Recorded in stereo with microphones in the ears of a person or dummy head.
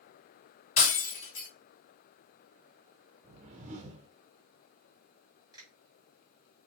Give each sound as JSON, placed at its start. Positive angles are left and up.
{"t": 0.8, "sound": "breaking glass", "side_deg": 40, "distance_m": 2.5}
{"t": 3.2, "sound": "a whoosh", "side_deg": -35, "distance_m": 0.7}
{"t": 5.5, "sound": "a finger snap", "side_deg": -15, "distance_m": 2.5}